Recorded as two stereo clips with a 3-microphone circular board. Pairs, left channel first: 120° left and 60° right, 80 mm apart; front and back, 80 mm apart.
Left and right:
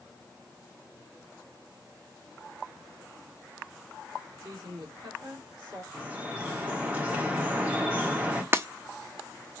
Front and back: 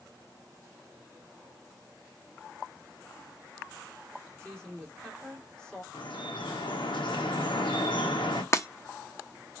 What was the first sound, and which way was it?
A woman speaking, 80° right.